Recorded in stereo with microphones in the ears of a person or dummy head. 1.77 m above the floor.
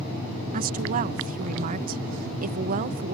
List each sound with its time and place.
0.5 s a woman speaking: 45° right (ahead or behind)